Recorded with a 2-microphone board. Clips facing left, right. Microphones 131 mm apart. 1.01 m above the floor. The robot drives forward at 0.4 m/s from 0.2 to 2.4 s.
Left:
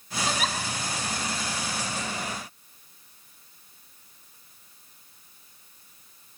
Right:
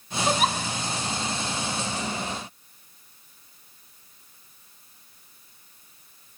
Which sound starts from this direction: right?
A giggle, at 0.3 s.